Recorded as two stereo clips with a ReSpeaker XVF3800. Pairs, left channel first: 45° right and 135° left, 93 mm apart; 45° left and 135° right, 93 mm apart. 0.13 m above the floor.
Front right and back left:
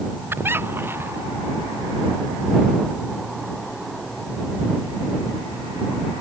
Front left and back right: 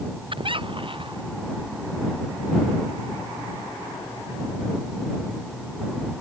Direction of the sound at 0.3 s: 160° right.